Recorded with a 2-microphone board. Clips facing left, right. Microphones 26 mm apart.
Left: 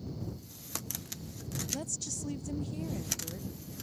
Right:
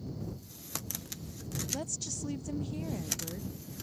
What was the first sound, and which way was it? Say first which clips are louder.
A woman speaking: right 1 dB; 5° right (ahead or behind).